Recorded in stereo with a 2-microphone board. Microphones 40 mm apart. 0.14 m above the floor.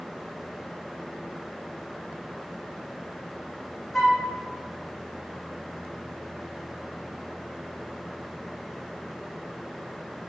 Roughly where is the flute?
Centre.